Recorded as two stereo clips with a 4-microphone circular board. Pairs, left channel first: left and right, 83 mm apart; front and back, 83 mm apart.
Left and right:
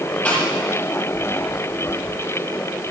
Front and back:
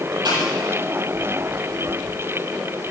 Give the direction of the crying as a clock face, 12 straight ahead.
No crying in this recording.